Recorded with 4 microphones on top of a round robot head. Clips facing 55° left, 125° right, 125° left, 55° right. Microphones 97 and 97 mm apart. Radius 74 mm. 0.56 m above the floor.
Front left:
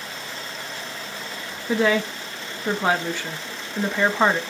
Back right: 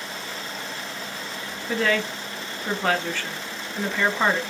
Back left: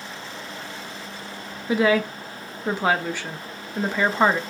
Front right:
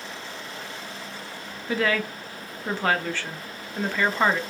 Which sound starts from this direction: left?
A woman speaking, at 1.7 s.